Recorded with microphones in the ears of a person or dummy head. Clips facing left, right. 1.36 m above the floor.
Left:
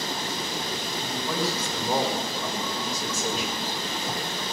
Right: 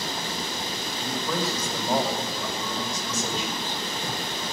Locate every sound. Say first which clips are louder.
1.0 s a man speaking: right 1 dB; 10° left (ahead or behind), 5.5 m